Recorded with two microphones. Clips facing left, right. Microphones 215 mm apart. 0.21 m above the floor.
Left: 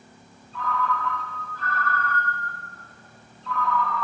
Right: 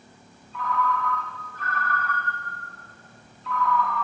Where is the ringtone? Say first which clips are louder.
Right 1 dB; 30° left (ahead or behind), 1.9 m.